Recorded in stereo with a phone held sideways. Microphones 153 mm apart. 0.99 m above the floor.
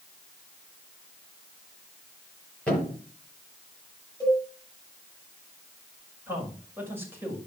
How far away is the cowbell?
About 7.5 m.